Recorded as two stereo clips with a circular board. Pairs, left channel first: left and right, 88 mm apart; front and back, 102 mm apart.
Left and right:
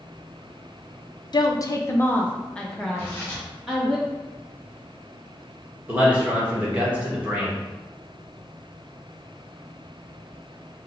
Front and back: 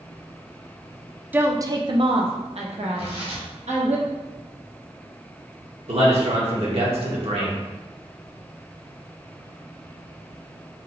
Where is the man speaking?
165° right, 1.6 m.